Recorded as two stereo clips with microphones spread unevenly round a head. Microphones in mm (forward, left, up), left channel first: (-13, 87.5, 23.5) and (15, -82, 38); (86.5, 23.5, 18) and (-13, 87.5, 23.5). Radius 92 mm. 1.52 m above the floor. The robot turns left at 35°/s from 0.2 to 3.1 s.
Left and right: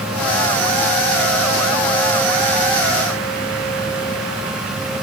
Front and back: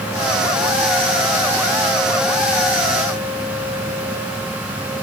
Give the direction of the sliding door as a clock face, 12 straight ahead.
I don't hear a sliding door.